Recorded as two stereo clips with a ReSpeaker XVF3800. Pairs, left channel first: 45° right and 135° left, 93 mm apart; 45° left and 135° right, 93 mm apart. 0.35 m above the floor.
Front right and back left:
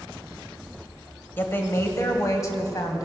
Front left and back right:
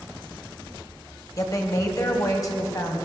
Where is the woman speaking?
10° left, 1.6 m; by 3.0 s straight ahead, 2.5 m.